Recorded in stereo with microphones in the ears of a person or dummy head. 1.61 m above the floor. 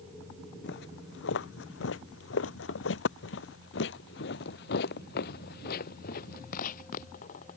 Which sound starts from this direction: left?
Footsteps, at 0.6 s.